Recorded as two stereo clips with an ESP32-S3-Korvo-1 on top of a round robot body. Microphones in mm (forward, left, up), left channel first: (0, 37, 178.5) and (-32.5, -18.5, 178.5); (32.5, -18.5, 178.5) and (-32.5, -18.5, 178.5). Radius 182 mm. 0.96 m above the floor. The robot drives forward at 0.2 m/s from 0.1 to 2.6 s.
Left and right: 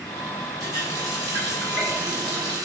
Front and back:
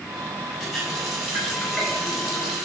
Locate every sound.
0.6 s a running tap: 90° right, 4 m; by 2.6 s 95° right, 4 m